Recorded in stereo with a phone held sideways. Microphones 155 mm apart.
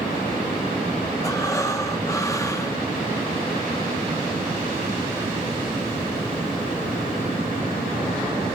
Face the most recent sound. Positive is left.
turn(degrees=20)  # may be behind; listen again after turning